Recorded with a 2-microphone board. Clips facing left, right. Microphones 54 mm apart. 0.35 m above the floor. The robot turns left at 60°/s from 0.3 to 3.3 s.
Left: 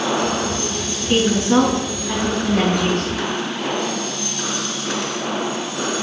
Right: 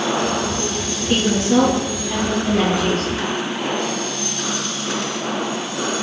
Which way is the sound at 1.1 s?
170° left.